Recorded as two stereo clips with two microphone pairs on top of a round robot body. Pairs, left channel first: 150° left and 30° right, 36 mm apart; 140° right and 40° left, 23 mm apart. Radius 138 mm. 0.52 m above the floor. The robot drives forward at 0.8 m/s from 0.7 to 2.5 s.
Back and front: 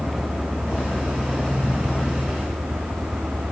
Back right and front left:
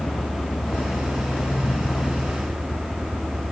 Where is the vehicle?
130° right.